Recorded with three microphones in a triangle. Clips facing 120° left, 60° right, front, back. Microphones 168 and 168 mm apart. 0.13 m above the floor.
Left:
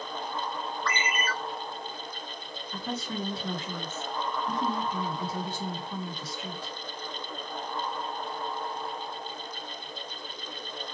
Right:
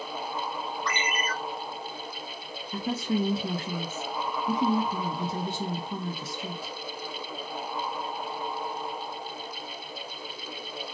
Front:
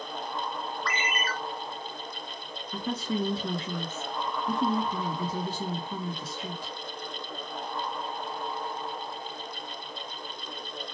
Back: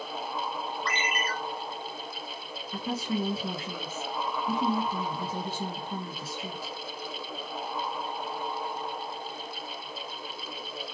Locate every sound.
0.8 s a ringtone: 125° right, 1.1 m
2.7 s a woman speaking: 100° right, 1.7 m